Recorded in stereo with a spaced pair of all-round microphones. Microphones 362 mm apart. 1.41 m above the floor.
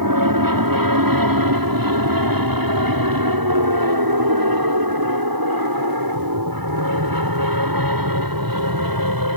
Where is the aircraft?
65° right (ahead or behind); by 9.4 s 70° right (ahead or behind).